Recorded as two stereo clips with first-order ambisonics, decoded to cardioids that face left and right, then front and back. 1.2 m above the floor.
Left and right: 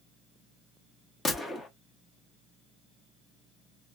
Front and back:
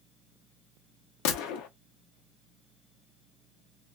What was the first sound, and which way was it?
A gunshot, 15° left.